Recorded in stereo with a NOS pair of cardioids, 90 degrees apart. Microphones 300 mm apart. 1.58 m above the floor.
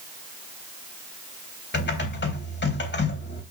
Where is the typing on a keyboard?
35° left, 3.5 m.